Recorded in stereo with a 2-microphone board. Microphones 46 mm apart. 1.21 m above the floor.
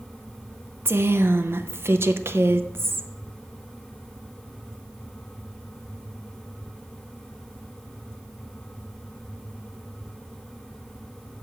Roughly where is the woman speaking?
Right.